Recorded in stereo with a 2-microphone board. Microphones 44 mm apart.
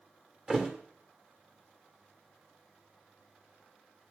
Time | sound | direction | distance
0.5 | a thud | 20° right (ahead or behind) | 1.9 m